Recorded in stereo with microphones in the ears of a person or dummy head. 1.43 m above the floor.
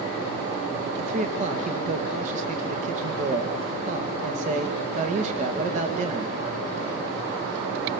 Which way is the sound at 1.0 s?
45° right (ahead or behind).